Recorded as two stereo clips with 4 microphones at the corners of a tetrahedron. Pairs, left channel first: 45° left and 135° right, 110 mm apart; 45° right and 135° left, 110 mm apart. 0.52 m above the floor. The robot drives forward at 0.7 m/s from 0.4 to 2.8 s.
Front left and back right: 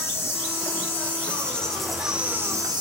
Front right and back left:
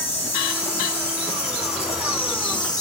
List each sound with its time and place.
0.0 s an insect: 20° right, 1.8 m; by 2.8 s 90° right, 0.8 m